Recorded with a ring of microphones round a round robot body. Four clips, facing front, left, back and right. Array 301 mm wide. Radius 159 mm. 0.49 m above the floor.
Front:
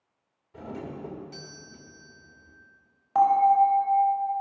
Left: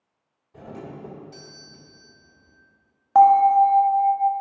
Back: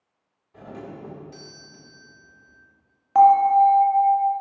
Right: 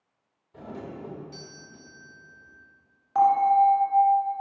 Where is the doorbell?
10° right, 1.1 m.